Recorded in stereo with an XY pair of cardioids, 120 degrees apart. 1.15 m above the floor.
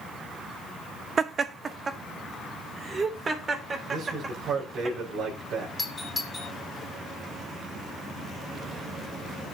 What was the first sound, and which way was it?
Laughter, 35° right.